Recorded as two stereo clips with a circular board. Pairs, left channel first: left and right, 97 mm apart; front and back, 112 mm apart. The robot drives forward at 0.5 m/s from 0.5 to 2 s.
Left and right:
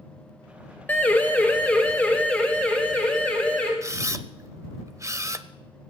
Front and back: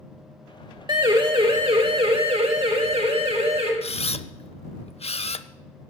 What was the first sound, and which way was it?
A siren, 155° left.